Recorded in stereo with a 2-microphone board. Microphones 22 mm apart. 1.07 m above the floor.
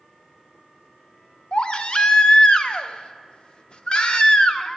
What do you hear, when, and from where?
1.5 s a baby crying: 40° left (ahead or behind), 0.7 m